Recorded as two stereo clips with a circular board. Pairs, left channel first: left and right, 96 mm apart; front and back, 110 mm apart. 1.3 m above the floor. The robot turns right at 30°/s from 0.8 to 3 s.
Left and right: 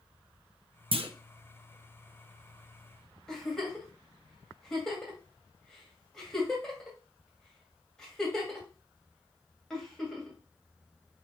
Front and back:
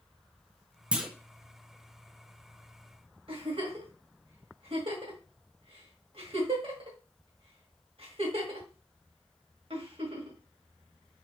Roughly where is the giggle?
Behind.